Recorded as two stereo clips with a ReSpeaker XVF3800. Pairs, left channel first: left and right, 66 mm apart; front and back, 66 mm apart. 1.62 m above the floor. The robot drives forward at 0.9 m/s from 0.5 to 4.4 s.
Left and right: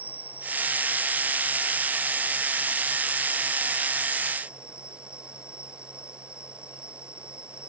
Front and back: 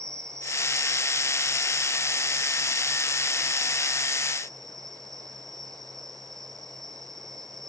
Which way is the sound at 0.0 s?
150° right.